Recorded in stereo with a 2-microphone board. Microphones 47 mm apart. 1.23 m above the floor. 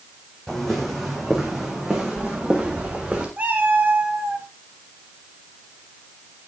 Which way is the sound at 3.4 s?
35° right (ahead or behind).